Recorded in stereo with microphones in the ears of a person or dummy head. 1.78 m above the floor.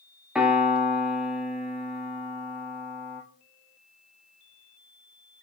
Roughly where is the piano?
Centre.